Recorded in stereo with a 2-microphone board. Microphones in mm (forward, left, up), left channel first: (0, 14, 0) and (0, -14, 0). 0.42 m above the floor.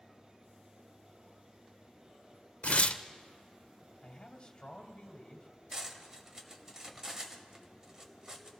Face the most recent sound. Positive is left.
turn(degrees=-20)  # may be behind; listen again after turning